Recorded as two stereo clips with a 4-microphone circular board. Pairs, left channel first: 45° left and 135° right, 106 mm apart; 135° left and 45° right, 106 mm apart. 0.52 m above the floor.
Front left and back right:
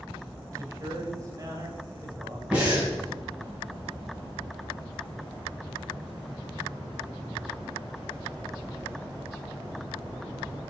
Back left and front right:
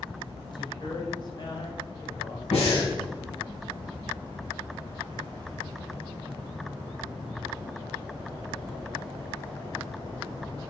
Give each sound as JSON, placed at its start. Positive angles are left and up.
{"t": 0.5, "sound": "a man speaking", "azimuth_deg": 170, "distance_m": 2.5}
{"t": 2.5, "sound": "breathing", "azimuth_deg": 145, "distance_m": 4.5}